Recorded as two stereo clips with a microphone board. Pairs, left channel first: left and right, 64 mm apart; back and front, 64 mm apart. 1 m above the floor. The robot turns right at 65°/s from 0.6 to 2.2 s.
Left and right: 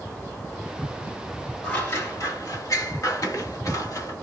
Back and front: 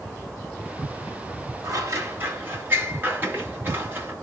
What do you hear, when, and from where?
1.6 s scissors: 20° left, 1.1 m; by 4.1 s 55° left, 1.1 m